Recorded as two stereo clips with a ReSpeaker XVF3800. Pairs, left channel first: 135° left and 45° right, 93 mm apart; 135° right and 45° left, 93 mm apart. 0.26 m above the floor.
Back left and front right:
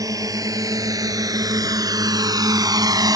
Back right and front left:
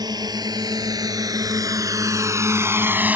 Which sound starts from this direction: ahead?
A drone, at 0.0 s.